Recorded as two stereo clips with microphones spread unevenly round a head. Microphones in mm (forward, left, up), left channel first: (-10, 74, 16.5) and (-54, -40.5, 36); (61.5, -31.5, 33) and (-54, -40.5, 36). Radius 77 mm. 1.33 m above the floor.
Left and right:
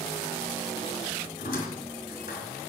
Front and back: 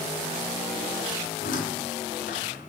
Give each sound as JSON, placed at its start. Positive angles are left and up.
{"t": 1.4, "sound": "a squeak", "azimuth_deg": 30, "distance_m": 3.0}